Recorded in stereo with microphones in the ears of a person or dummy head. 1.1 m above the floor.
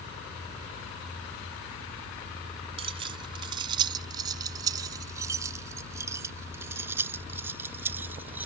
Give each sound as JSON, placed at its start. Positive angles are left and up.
{"t": 2.8, "sound": "keys jangling", "side_deg": -35}